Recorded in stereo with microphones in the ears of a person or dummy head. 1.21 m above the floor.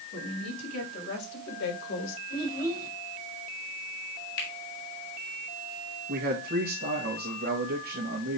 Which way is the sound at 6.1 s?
50° right (ahead or behind).